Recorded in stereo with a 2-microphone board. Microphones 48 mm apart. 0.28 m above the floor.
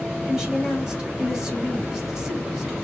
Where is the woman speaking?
15° right (ahead or behind), 1.4 m.